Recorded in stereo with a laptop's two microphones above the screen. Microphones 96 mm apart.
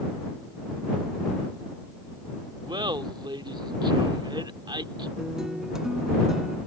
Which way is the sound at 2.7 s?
55° right (ahead or behind).